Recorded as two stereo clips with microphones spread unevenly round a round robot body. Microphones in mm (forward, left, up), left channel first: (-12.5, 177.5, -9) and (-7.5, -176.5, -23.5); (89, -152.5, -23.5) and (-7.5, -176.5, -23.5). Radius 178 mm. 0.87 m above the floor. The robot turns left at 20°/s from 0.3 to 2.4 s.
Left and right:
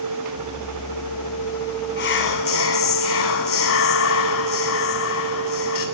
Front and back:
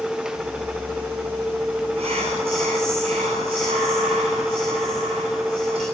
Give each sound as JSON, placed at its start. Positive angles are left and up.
{"t": 2.0, "sound": "whispering", "azimuth_deg": 155, "distance_m": 8.5}